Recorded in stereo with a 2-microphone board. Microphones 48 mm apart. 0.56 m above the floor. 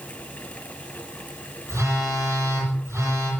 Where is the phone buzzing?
90° right, 9.5 m.